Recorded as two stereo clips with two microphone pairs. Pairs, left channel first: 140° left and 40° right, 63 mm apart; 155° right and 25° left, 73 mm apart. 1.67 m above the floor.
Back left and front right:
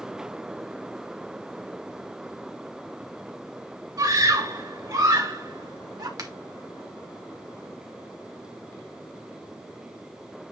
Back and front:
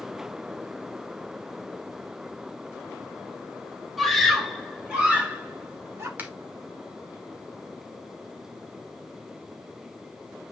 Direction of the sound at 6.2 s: 40° right.